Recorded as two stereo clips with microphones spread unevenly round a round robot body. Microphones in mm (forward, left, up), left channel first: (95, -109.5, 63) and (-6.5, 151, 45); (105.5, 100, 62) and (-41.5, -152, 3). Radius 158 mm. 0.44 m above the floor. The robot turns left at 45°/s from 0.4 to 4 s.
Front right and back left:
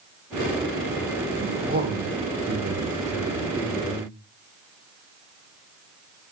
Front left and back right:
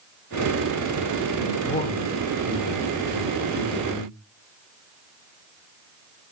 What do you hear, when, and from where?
1.4 s a man speaking: 140° left, 0.9 m; by 4.1 s 25° left, 0.9 m